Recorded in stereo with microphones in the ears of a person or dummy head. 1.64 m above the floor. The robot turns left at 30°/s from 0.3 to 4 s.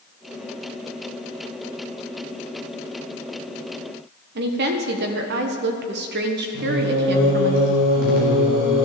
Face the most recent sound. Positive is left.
turn(degrees=-80)